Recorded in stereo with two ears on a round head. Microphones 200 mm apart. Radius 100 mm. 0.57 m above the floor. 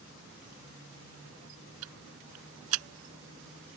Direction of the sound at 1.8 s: 75° right (ahead or behind).